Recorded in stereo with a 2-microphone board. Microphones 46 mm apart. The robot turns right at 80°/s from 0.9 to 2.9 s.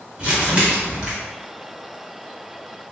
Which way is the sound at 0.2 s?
25° right (ahead or behind).